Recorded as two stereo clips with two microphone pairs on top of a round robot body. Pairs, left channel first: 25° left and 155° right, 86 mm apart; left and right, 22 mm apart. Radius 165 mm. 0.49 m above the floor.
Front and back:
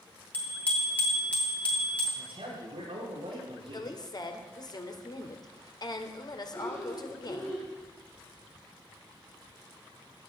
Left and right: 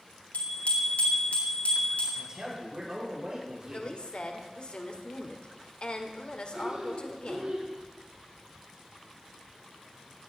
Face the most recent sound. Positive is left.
turn(degrees=-45)